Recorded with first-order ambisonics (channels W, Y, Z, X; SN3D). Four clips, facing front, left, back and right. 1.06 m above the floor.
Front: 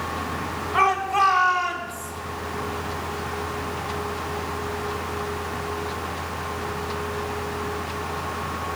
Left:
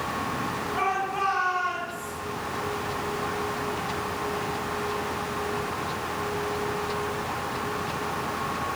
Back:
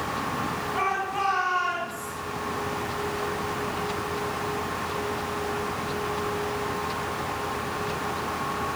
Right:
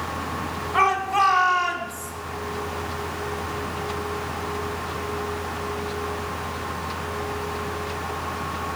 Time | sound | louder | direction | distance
0.7 | a shout | right 8 dB, front 9 dB | 55° right | 3.5 m